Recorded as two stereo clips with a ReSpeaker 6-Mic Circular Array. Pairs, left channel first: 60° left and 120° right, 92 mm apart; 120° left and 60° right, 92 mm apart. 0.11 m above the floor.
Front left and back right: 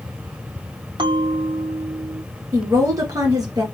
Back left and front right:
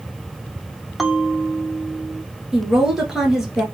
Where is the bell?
150° right, 0.7 m.